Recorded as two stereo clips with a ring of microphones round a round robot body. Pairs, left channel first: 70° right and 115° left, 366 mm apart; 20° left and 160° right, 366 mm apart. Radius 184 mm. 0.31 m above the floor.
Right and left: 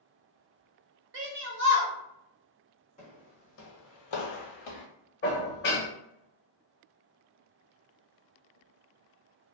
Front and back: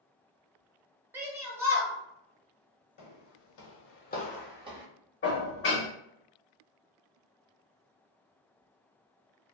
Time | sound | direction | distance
1.1 | a shout | 125° left | 1.0 m
3.0 | footsteps | 5° left | 1.1 m
5.2 | dishes clattering | 20° right | 0.8 m